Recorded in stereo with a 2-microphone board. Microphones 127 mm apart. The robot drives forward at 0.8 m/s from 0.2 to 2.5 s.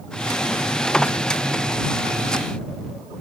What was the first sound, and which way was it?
Only background noise.